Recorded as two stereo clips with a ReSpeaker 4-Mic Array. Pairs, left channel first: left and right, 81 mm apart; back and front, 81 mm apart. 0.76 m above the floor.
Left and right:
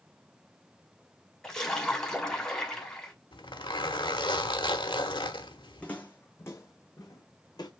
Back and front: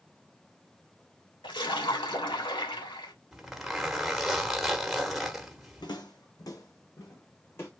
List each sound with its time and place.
1.4 s a splash: 170° left, 2 m
3.3 s a zipper: 90° left, 1.2 m
5.8 s footsteps: 165° left, 1.9 m; by 7.7 s 120° left, 2.5 m